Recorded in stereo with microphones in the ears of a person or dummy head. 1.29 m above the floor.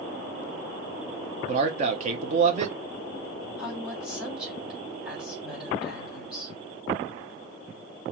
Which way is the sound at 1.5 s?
45° right (ahead or behind).